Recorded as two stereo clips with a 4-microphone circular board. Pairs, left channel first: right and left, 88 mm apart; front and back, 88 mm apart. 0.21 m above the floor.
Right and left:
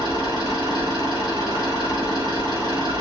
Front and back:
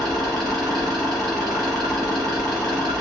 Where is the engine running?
90° left, 2.5 m.